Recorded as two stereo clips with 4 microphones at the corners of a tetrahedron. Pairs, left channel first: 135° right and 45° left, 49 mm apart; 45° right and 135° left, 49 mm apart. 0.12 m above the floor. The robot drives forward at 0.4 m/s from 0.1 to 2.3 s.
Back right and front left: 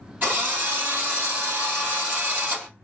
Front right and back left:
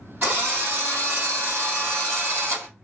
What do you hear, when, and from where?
0.2 s a drill: 85° left, 3 m; by 2.7 s 100° left, 3 m